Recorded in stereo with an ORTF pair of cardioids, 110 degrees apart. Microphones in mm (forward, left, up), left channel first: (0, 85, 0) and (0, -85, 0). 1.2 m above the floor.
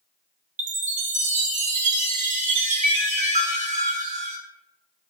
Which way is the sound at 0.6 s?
50° right.